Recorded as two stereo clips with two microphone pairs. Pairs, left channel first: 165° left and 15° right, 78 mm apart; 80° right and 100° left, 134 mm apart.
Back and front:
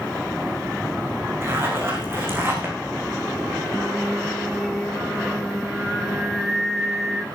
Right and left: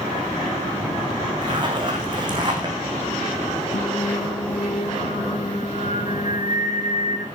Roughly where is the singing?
Right.